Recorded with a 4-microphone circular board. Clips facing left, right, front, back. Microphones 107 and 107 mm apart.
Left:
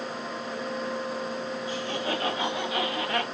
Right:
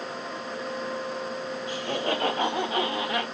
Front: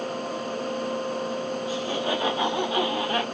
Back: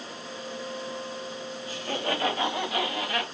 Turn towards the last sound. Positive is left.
turn(degrees=-5)